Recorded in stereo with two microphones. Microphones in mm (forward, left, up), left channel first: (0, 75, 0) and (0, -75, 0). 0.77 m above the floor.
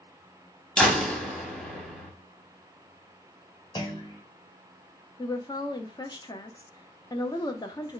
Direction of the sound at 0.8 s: 5° left (ahead or behind).